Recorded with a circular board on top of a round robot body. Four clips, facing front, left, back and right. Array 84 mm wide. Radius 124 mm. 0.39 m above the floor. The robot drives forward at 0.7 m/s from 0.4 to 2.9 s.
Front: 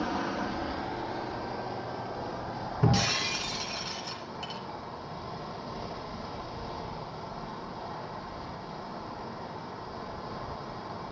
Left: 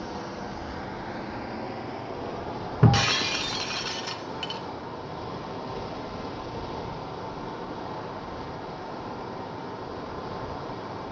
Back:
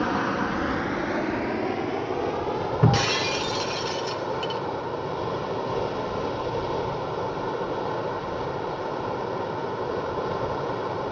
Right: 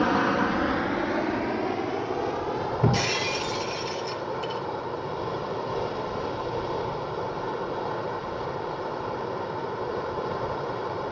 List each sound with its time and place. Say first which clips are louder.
0.0 s running water: right 12 dB, back 7 dB; 125° right, 0.7 m; by 11.1 s 165° right, 2 m
2.8 s breaking glass: left 4 dB, back 4 dB; 120° left, 3 m